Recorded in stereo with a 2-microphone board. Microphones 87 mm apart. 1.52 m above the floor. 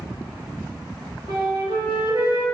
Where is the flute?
55° right (ahead or behind), 1.3 m.